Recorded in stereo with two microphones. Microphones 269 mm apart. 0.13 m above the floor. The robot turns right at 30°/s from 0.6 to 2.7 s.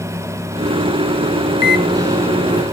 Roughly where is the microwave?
Centre.